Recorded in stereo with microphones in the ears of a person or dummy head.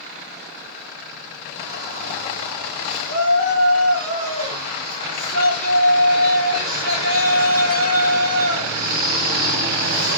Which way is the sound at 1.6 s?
80° right.